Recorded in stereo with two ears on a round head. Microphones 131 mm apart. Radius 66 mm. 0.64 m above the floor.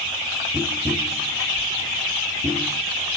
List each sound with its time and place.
0.5 s tapping: 10° right (ahead or behind), 0.8 m